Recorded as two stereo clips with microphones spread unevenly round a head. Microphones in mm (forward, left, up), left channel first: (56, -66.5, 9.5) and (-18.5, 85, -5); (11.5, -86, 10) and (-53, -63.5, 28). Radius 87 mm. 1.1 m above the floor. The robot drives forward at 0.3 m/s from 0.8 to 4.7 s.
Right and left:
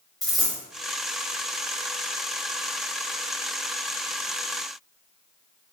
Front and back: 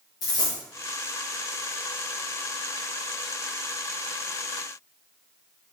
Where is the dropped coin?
20° left, 1.3 m.